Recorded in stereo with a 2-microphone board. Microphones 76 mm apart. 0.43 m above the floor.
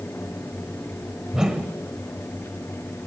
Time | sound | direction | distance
1.3 | a whoosh | 10° right (ahead or behind) | 1.2 m